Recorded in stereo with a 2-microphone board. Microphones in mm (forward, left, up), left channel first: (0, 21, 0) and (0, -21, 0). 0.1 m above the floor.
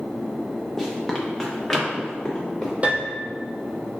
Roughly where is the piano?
Right.